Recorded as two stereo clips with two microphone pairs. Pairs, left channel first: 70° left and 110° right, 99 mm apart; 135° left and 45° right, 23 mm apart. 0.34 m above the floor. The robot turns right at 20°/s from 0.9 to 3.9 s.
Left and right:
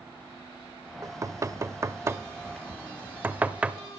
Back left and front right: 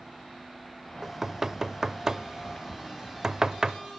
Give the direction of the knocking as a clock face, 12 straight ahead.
3 o'clock.